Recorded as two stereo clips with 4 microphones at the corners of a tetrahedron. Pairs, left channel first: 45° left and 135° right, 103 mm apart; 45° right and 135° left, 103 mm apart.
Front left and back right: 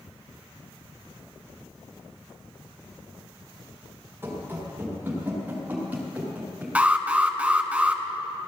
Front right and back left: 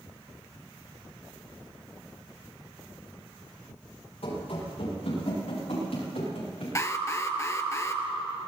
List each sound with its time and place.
4.2 s running footsteps: 65° right, 7 m; by 6.7 s 60° right, 10 m
6.8 s an alarm: 70° right, 1.3 m